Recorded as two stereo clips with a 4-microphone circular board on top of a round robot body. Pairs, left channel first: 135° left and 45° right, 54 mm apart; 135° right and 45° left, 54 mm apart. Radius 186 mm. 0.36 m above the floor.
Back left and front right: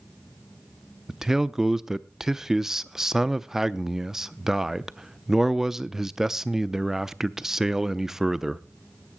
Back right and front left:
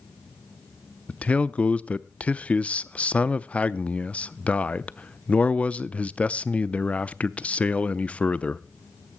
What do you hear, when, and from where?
1.1 s a man speaking: 115° right, 0.8 m